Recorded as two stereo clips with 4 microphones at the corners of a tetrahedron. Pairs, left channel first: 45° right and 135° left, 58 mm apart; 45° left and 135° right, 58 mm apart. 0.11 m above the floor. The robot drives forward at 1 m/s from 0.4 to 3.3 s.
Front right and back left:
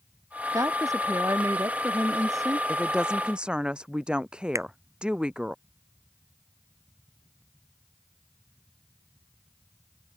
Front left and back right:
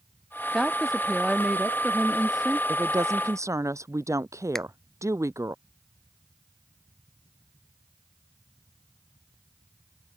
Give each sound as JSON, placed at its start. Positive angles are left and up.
{"t": 0.5, "sound": "a woman speaking", "azimuth_deg": 135}
{"t": 2.7, "sound": "a woman speaking", "azimuth_deg": -150}
{"t": 4.5, "sound": "a finger snap", "azimuth_deg": 125}